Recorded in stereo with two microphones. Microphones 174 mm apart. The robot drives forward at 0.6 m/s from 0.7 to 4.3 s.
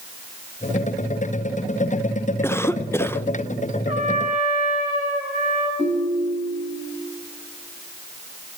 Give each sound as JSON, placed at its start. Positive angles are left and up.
{"t": 2.4, "sound": "a cough", "side_deg": 15, "distance_m": 0.6}
{"t": 3.9, "sound": "a trumpet", "side_deg": -45, "distance_m": 7.0}
{"t": 5.8, "sound": "a ringtone", "side_deg": -35, "distance_m": 3.5}